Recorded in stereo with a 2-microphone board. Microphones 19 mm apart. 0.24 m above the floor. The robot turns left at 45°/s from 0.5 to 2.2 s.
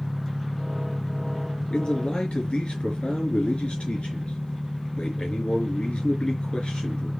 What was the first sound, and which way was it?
An engine running, 155° right.